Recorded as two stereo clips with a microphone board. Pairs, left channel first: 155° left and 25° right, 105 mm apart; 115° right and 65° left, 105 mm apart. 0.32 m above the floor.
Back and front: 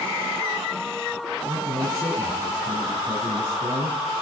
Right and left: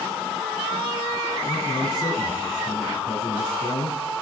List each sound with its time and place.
1.4 s a man speaking: 70° right, 2.5 m